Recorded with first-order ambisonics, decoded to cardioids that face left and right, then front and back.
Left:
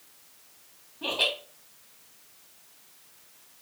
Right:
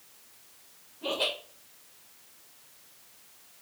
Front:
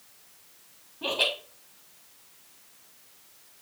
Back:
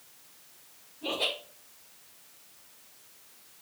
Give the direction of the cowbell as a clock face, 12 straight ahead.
No cowbell in this recording.